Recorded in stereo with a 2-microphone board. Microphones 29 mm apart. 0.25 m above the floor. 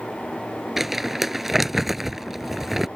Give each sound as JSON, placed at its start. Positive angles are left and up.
{"t": 0.8, "sound": "crumpling", "side_deg": -10}